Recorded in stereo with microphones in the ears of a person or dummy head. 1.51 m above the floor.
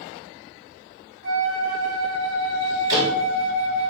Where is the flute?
65° right (ahead or behind), 1.2 m.